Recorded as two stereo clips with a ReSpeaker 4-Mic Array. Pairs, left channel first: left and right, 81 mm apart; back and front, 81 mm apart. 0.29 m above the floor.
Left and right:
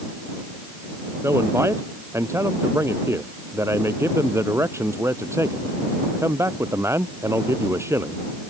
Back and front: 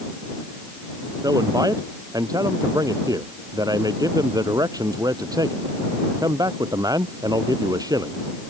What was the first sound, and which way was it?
A man speaking, 35° right.